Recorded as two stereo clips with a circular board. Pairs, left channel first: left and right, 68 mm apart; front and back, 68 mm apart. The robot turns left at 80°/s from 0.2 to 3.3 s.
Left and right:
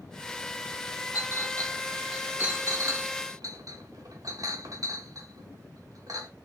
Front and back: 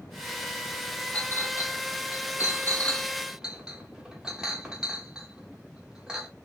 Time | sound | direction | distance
1.1 | a clink | 70° left | 1.0 m